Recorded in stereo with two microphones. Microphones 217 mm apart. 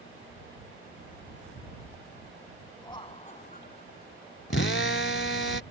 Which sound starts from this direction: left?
A drill, at 4.5 s.